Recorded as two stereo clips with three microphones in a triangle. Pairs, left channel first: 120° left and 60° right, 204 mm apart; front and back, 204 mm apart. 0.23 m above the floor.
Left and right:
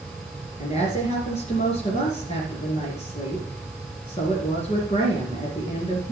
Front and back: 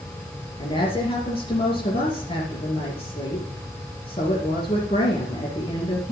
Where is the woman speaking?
65° left, 3 m.